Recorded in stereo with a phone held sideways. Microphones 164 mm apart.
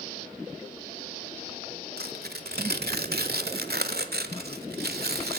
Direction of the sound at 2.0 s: 85° right.